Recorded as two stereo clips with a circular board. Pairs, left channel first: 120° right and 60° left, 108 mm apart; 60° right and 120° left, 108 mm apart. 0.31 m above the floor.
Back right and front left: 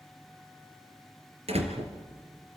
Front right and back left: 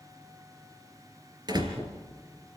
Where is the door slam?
70° left, 3.5 m.